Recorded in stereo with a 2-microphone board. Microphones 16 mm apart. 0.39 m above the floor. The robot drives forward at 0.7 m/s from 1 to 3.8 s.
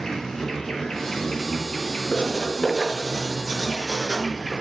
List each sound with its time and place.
0.0 s an insect: 35° left (ahead or behind), 3.5 m; by 4.6 s 65° left (ahead or behind), 2 m
2.1 s writing: 75° left (ahead or behind), 3.5 m; by 4.5 s 80° left, 3.5 m